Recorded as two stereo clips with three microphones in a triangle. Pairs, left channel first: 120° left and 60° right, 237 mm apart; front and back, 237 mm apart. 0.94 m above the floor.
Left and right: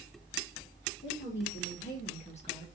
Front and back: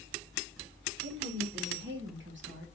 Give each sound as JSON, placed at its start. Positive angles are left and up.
{"t": 1.0, "sound": "a woman speaking", "azimuth_deg": 150, "distance_m": 1.9}